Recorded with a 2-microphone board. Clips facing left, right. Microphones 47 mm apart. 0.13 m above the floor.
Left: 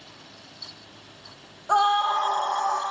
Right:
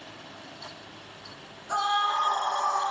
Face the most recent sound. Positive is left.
turn(degrees=75)  # may be behind; listen again after turning